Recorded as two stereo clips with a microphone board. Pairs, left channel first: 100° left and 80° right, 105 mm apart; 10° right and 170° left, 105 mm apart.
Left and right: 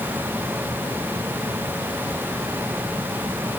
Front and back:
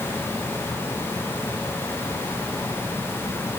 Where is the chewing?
I don't hear chewing.